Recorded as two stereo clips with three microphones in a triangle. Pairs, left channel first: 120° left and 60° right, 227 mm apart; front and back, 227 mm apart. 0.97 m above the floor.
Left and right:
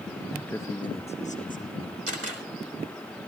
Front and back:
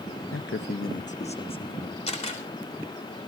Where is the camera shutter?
60° right, 3.5 m.